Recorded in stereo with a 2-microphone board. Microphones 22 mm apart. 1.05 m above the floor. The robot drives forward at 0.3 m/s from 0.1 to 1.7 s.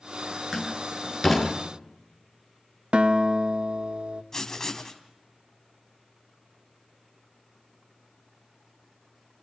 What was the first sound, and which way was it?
A door slam, 5° left (ahead or behind).